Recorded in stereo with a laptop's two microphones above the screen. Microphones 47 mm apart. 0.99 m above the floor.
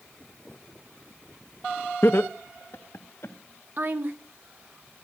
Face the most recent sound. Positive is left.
turn(degrees=-45)  # may be behind; listen again after turning